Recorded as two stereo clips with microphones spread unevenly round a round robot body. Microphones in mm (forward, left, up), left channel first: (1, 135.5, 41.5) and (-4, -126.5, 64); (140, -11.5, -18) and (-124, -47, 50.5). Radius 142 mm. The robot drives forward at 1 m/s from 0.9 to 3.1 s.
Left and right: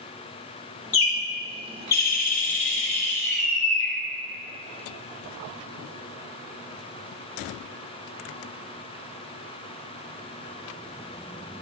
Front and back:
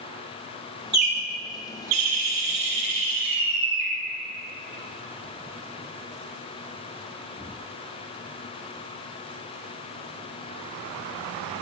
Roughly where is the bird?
Behind left.